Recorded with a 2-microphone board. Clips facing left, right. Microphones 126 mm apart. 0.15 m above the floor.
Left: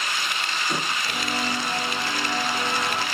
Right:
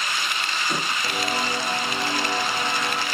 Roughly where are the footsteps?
Right.